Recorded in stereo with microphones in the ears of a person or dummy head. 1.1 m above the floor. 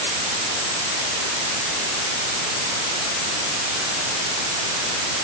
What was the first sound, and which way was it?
Only background noise.